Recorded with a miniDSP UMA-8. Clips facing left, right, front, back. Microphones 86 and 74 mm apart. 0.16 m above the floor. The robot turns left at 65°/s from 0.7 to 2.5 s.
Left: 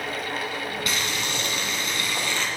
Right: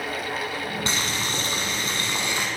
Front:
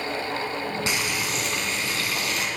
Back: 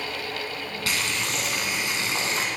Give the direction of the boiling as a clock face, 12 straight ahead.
2 o'clock.